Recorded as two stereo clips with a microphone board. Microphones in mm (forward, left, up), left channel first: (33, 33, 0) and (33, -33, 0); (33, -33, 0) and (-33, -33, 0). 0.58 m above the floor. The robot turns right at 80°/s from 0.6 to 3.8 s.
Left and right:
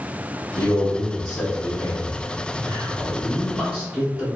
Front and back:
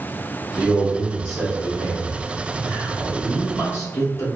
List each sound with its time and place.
0.6 s a man speaking: 80° left, 1.1 m; by 4.4 s 25° right, 1.1 m